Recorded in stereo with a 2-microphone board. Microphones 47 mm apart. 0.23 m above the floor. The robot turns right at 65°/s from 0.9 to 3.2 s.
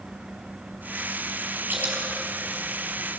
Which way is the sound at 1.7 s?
50° right (ahead or behind).